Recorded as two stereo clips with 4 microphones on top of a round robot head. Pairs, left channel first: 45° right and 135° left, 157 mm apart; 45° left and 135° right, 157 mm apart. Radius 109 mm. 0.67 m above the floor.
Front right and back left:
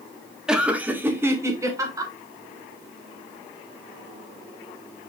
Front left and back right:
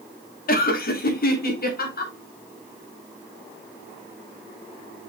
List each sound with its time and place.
0.5 s laughter: 50° left, 1.5 m; by 2.1 s 70° left, 3 m